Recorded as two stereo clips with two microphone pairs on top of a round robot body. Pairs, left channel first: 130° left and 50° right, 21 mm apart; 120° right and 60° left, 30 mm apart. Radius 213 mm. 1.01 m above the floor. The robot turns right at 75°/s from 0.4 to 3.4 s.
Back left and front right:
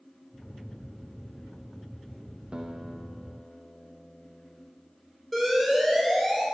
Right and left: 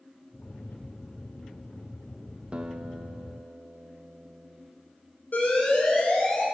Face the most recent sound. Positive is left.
turn(degrees=-140)